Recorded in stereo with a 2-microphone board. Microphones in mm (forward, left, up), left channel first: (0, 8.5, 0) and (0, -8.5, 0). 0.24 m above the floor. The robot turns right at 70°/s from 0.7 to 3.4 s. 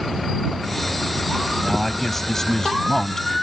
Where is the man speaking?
5° right; by 3.4 s 115° left.